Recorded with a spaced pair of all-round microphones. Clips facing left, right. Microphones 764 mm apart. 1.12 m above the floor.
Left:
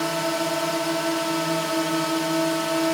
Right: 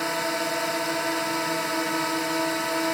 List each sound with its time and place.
0.0 s a drone: 60° left (ahead or behind)